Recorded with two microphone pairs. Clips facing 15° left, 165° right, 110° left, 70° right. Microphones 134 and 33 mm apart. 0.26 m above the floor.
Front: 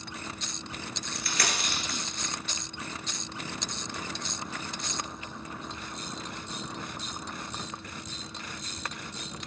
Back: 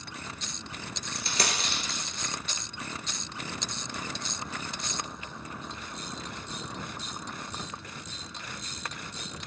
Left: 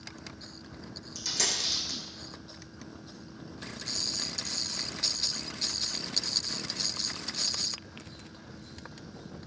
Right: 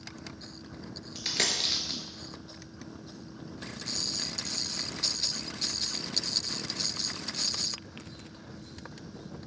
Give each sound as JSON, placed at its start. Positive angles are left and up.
{"t": 1.1, "sound": "a dropped coin", "azimuth_deg": -105, "distance_m": 0.7}